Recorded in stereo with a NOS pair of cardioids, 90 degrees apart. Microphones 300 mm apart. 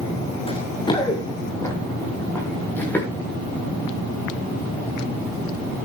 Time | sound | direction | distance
0.5 | running footsteps | 20° left | 3.5 m